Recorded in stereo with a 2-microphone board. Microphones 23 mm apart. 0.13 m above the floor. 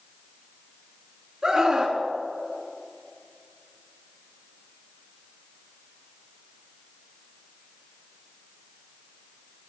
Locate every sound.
1.4 s a scream: 15° right (ahead or behind), 1.5 m